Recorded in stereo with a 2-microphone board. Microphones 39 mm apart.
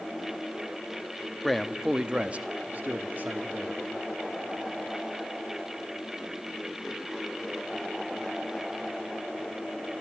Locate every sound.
1.4 s a man speaking: 5° left (ahead or behind), 0.7 m; by 3.8 s 50° right (ahead or behind), 1.4 m